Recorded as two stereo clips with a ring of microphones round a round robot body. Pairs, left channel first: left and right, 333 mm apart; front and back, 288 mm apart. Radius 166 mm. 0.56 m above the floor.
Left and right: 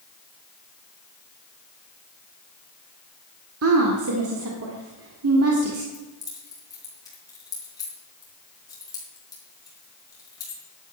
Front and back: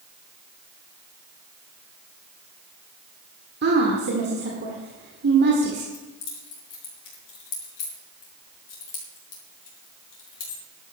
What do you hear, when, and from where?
3.6 s a woman speaking: 130° right, 1.7 m
5.9 s keys jangling: 10° left, 4.5 m